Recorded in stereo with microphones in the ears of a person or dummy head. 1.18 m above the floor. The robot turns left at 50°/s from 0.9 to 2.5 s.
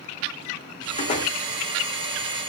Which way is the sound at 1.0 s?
40° left (ahead or behind).